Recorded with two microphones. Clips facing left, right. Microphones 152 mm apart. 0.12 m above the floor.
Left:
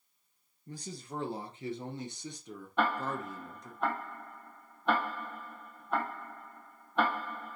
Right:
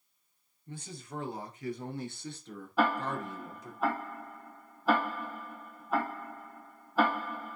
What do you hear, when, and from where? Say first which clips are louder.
0.7 s a man speaking: left 1 dB; 40° left (ahead or behind), 2.5 m; by 3.8 s 5° right (ahead or behind), 2.5 m
2.8 s ticking: right 2 dB; 5° right (ahead or behind), 3 m